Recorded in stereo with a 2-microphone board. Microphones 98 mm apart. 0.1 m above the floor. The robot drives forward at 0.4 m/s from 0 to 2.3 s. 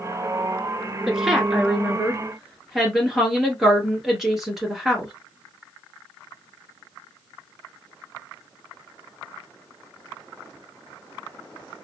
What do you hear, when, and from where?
1.1 s a woman speaking: 5° right (ahead or behind), 1.1 m